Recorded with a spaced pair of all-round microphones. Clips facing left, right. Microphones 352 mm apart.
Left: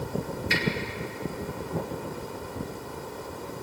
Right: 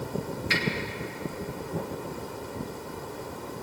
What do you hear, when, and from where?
0.5 s a finger snap: 85° right, 3 m